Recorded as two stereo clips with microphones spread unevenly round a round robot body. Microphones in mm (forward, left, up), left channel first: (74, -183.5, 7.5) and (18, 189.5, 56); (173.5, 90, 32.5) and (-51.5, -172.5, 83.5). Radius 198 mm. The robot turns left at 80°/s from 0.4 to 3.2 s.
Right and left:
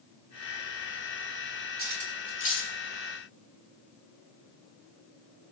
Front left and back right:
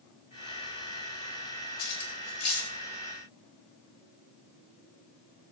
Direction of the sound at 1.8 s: 40° left.